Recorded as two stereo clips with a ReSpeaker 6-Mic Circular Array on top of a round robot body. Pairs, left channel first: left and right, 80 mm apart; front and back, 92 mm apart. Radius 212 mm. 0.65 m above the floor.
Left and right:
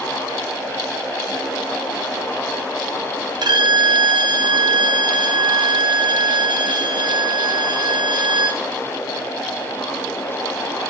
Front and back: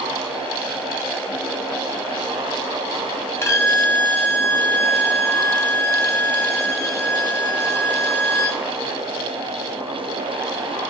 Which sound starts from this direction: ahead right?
A violin, at 3.4 s.